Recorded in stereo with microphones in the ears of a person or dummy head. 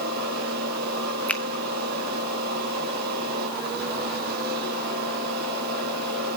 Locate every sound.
0.0 s a fan: 60° right (ahead or behind), 3.5 m
1.3 s a finger snap: 10° left (ahead or behind), 1.1 m